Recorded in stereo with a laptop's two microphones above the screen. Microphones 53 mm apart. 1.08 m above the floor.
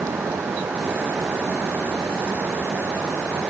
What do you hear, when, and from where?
0.0 s a fan: 70° right (ahead or behind)